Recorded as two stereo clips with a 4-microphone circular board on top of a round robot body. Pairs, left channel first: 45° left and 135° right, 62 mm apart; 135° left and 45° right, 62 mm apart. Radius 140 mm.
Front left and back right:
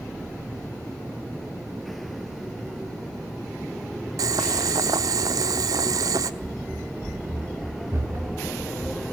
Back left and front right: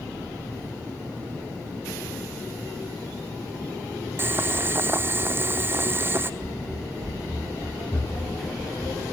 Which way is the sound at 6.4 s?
160° right.